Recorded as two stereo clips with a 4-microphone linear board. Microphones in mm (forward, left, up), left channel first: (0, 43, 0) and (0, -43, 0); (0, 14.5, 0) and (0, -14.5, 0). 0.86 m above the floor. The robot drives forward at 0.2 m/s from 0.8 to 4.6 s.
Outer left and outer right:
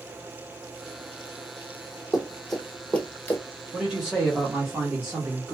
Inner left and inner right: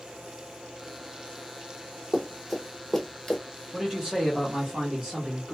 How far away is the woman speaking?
About 1.1 m.